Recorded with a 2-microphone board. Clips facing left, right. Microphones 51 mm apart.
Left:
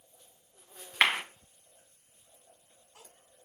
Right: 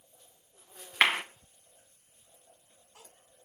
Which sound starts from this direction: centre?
A clap, at 1.0 s.